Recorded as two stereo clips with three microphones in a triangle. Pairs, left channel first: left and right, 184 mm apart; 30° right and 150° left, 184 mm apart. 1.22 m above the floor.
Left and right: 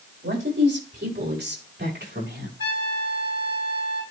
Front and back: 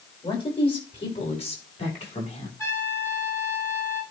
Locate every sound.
0.2 s a man speaking: 90° right, 5.5 m; by 2.5 s 85° right, 6.5 m
2.6 s a trumpet: 105° right, 4.5 m